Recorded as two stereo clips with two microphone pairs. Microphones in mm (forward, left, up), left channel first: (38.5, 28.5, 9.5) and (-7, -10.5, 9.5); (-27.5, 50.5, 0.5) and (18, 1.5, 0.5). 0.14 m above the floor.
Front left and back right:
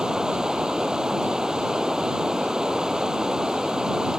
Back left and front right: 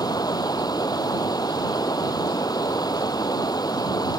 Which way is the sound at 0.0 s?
140° left.